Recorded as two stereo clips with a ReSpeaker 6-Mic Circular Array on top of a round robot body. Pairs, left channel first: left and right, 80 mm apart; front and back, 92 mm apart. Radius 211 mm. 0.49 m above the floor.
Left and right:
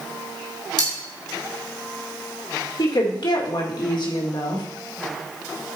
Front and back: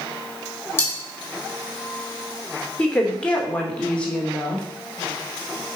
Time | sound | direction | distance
0.8 | cutlery clinking | 65° left | 3 m
2.8 | a woman speaking | 75° left | 2.5 m